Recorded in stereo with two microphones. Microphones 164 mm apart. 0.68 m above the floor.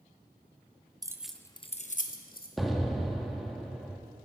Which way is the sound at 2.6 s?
Centre (ahead or behind).